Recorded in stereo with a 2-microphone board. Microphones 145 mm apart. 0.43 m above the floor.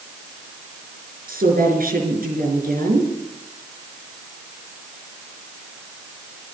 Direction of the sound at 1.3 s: 80° right.